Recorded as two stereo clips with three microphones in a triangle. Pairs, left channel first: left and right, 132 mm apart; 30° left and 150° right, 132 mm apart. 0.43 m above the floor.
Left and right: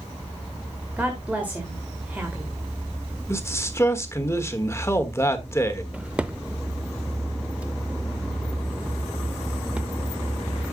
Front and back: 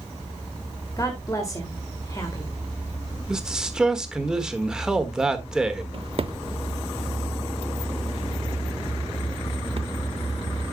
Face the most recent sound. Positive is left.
turn(degrees=-170)